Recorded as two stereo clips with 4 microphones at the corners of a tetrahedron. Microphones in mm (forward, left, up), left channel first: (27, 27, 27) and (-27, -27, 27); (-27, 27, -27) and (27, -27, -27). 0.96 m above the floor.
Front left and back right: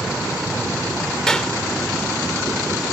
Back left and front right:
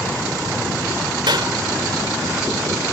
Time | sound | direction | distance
1.3 | a clap | 35° right | ?